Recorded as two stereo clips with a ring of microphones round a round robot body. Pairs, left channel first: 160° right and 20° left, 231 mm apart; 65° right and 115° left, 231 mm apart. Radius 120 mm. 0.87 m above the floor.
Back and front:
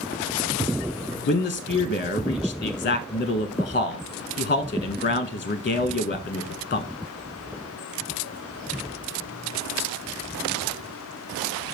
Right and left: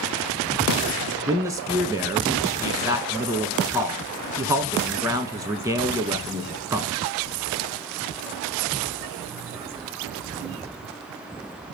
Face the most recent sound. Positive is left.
turn(degrees=-175)